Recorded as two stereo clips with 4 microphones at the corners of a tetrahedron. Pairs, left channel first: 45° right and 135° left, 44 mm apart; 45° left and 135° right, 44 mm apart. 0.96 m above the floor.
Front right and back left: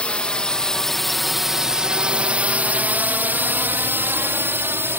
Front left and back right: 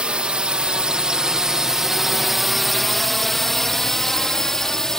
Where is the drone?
85° right; by 5.0 s 125° left.